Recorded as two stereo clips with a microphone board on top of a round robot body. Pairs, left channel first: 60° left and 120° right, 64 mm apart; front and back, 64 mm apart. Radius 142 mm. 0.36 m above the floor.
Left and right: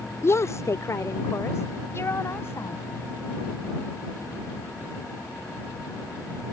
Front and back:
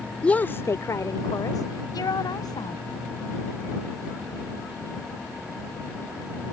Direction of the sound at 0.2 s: 65° left.